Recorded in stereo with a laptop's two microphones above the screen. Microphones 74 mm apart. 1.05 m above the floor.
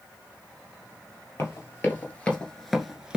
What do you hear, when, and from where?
1.4 s running footsteps: 40° left (ahead or behind), 1.5 m; by 3.2 s 15° right (ahead or behind), 1.0 m